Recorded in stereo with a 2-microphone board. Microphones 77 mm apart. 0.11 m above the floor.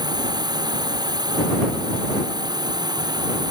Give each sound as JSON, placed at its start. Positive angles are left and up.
{"t": 0.0, "sound": "a drone", "side_deg": -65}